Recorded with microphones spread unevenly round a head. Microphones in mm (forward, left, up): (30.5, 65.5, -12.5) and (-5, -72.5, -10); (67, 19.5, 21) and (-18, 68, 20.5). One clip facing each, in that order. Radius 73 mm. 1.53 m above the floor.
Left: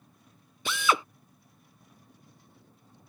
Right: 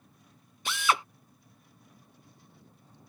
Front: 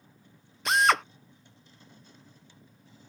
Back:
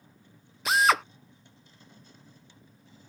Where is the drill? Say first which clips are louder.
Left 1 dB, even; 65° left.